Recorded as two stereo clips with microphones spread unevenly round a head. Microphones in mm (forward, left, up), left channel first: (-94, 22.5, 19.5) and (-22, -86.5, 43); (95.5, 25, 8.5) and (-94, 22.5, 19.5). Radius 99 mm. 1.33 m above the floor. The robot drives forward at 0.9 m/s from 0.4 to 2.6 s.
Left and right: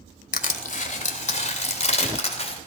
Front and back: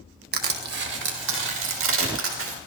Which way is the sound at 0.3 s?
140° left.